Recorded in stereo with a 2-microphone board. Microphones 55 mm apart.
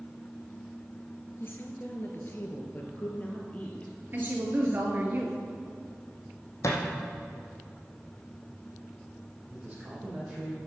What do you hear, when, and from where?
1.4 s a woman speaking: 40° left (ahead or behind), 1.7 m; by 3.9 s 25° left (ahead or behind), 2.5 m
4.1 s a woman speaking: 35° right (ahead or behind), 2 m
6.6 s a thud: 65° left (ahead or behind), 2.5 m
9.5 s a man speaking: 25° right (ahead or behind), 4 m